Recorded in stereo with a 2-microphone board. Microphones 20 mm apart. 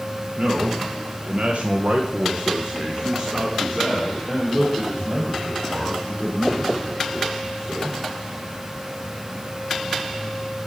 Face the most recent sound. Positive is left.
turn(degrees=5)  # may be behind; listen again after turning